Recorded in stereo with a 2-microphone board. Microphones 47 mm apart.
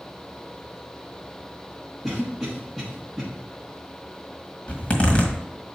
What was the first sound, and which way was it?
A cough, 10° right (ahead or behind).